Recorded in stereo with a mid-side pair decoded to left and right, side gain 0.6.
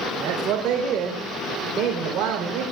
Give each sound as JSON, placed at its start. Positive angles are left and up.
{"t": 0.2, "sound": "a man speaking", "azimuth_deg": -60, "distance_m": 4.0}